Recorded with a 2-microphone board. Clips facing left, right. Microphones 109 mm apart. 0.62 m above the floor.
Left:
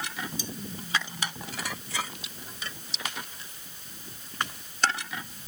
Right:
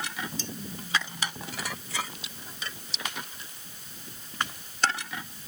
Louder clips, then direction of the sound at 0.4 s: Even; 15° left (ahead or behind).